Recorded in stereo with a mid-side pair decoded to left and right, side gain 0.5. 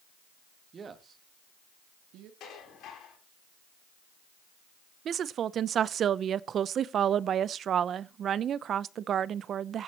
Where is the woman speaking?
50° right, 0.7 m.